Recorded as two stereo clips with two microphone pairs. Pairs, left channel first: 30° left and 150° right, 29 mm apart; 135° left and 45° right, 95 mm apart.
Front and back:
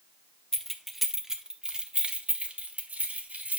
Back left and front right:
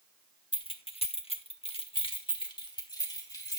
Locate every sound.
0.5 s keys jangling: 105° left, 1.0 m; by 3.6 s 175° right, 2 m